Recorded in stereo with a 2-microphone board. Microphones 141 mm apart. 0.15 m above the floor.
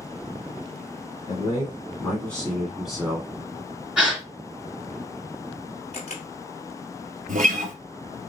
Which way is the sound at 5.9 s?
50° left (ahead or behind).